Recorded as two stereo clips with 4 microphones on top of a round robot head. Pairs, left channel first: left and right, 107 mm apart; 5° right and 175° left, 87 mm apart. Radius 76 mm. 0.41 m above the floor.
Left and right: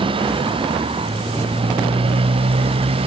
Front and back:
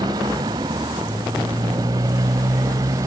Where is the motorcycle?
130° right; by 3.1 s 125° right.